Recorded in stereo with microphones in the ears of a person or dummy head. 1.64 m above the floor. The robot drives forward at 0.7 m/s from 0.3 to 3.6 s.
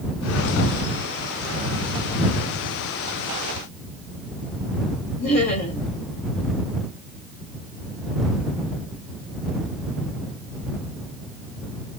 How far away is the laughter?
About 2.5 m.